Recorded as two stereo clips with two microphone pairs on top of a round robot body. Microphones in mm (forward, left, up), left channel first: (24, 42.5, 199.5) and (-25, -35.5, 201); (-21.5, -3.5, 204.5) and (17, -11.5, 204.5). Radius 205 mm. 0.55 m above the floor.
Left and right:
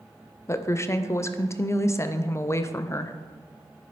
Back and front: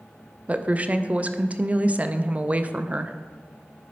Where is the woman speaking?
20° left, 0.7 m.